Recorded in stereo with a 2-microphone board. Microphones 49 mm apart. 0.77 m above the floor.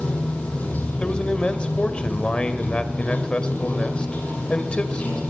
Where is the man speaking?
20° left (ahead or behind), 3 m.